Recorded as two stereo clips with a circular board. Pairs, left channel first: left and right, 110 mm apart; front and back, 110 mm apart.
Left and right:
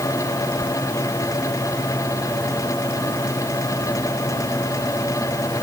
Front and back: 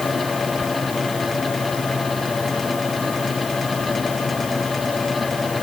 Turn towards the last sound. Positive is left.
No sound to turn to.